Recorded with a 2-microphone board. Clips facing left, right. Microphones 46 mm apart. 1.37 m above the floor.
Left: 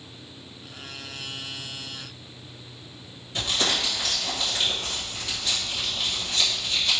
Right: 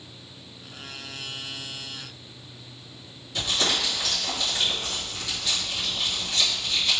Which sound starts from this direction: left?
Crumpling, at 3.4 s.